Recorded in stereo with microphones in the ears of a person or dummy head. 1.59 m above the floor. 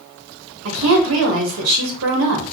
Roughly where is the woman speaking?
Right.